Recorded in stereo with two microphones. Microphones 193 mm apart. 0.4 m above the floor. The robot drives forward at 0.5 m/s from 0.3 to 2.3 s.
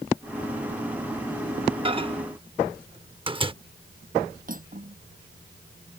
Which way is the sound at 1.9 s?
25° right (ahead or behind).